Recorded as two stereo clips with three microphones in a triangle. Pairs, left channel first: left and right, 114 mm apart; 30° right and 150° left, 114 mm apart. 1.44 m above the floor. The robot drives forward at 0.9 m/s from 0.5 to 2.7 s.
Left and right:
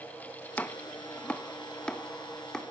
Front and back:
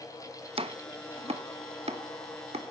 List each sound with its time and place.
0.6 s chopping: 160° left, 0.9 m; by 2.6 s 175° left, 2.5 m